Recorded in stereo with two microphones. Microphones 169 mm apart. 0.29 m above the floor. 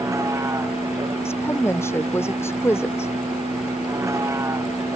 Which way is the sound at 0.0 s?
15° right (ahead or behind).